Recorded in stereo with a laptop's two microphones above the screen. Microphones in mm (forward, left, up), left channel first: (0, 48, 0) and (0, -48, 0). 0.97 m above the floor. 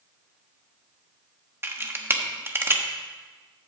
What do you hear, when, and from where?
1.6 s a camera shutter: 25° right (ahead or behind), 1.0 m